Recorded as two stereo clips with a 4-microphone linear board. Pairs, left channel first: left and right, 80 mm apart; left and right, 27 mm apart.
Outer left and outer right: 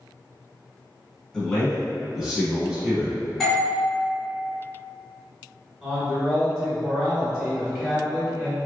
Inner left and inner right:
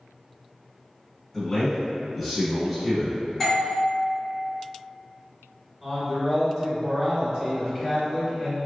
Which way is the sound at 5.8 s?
5° right (ahead or behind).